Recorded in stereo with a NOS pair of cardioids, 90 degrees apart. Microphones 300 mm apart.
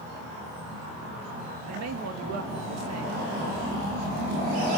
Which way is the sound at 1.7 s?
60° right.